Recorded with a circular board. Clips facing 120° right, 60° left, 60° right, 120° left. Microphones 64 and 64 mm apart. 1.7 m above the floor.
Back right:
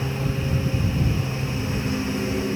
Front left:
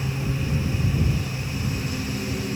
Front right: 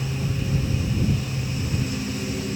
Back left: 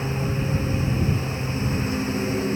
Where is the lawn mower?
Straight behind.